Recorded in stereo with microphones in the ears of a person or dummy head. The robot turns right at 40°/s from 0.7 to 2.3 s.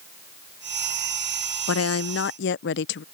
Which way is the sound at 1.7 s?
80° left.